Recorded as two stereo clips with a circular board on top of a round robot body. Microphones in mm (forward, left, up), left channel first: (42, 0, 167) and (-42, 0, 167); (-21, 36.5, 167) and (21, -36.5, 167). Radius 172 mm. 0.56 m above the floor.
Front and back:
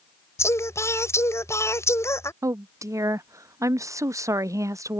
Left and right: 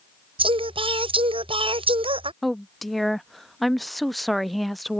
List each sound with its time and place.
0.4 s singing: 60° right
2.4 s a woman speaking: 150° right